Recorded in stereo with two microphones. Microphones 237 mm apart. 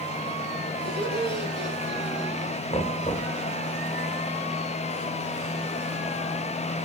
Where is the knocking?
25° left (ahead or behind), 1.9 m.